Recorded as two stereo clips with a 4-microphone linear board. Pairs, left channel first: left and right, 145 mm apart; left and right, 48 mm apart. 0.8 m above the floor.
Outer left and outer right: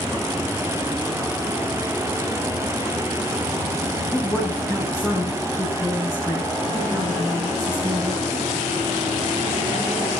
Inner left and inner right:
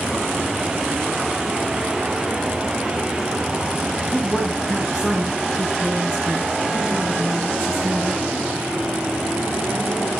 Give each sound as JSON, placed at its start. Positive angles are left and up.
{"t": 4.1, "sound": "a woman speaking", "side_deg": 15, "distance_m": 7.5}